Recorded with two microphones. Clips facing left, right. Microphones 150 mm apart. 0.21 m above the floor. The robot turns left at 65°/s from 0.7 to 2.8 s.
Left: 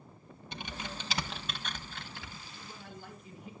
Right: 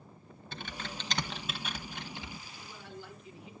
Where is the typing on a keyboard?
15° left (ahead or behind), 1.1 m; by 2.4 s 25° right (ahead or behind), 1.1 m.